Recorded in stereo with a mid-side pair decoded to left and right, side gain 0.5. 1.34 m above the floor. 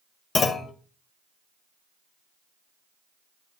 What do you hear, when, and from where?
0.3 s a clunk: 40° left, 1.0 m